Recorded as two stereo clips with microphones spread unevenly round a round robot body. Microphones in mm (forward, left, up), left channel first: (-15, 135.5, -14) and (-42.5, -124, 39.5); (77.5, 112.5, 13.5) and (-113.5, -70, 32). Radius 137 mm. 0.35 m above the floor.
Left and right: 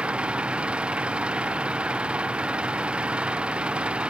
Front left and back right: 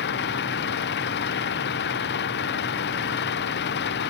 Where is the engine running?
10° right.